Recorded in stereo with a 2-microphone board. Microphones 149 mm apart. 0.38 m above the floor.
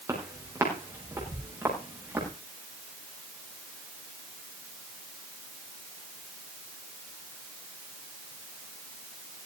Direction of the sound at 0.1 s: 20° right (ahead or behind).